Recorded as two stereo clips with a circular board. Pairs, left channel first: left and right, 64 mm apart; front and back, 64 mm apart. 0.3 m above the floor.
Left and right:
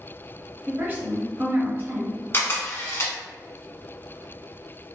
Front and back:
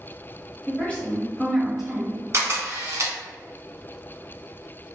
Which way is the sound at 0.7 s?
45° right.